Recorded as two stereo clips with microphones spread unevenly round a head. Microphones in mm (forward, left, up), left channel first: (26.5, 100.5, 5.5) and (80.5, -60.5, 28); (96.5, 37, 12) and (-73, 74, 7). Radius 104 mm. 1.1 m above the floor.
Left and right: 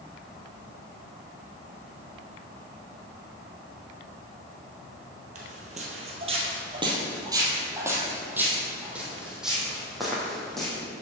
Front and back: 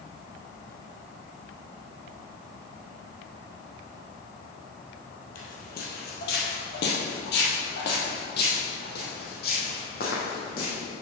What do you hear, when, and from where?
5.3 s footsteps: 50° right, 1.8 m; by 10.8 s 20° left, 3.5 m